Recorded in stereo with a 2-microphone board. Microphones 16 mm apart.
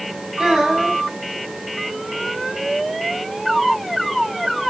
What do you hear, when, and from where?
0.4 s a child speaking: 55° right (ahead or behind), 3.5 m